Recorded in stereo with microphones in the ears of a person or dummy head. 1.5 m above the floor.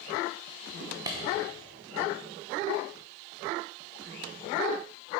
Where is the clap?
20° right (ahead or behind), 0.9 m.